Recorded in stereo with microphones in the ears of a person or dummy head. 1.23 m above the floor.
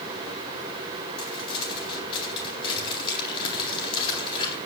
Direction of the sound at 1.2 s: 30° left (ahead or behind).